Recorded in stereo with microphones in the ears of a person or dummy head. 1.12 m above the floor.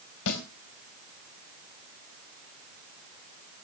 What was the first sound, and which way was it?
A snare drum, 70° left (ahead or behind).